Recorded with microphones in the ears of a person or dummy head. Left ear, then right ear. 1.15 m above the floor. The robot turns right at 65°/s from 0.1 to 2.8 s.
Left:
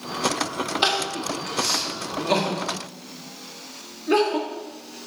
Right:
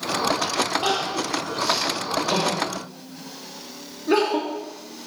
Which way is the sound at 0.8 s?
55° left (ahead or behind).